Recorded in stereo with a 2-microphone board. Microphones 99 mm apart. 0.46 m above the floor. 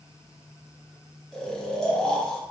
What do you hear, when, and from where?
1.3 s snoring: 5° left (ahead or behind), 0.8 m